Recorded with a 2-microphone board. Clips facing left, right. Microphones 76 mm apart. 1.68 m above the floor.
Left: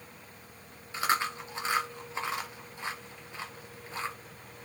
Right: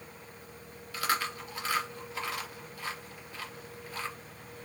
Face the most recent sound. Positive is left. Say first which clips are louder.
# left 2 dB
turn(degrees=25)  # may be behind; listen again after turning